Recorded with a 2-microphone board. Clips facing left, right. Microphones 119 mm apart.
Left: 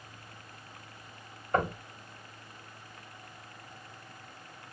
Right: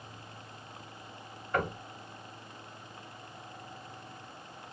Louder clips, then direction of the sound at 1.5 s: Left 3 dB; 40° left (ahead or behind).